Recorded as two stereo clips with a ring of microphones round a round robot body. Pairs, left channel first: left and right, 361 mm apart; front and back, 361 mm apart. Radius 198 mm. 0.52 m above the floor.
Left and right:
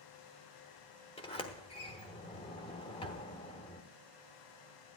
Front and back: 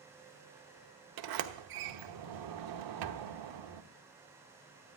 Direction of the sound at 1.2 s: 165° left.